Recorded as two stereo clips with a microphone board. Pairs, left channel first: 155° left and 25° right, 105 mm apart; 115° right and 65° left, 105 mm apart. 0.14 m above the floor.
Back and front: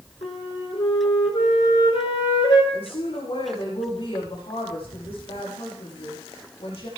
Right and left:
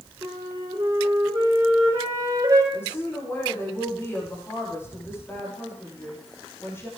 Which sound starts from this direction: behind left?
A flute, at 0.2 s.